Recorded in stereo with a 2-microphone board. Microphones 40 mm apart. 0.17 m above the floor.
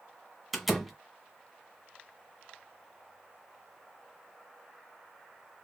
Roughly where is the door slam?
Centre.